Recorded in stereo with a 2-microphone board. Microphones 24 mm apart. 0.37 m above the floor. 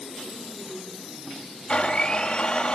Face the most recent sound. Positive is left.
turn(degrees=30)  # may be behind; listen again after turning